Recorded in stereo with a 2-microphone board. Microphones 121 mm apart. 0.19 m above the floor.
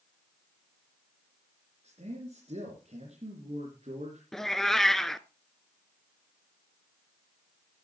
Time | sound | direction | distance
1.8 | a man speaking | 60° right (ahead or behind) | 3.5 m
4.3 | a cat meowing | 5° left (ahead or behind) | 0.5 m